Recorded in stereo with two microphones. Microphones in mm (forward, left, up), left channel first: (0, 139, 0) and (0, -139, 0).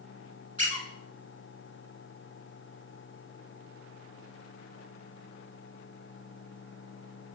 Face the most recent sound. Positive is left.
turn(degrees=-25)  # may be behind; listen again after turning